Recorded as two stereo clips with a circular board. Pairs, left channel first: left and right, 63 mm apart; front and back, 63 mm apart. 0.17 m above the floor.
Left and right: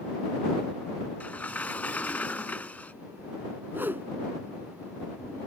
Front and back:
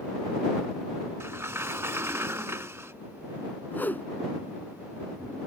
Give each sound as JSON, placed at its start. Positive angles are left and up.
{"t": 1.2, "sound": "a sliding door", "azimuth_deg": 150}
{"t": 3.7, "sound": "a whoosh", "azimuth_deg": -50}